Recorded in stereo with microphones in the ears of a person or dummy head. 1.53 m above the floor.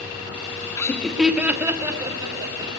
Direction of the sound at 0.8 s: 15° left (ahead or behind).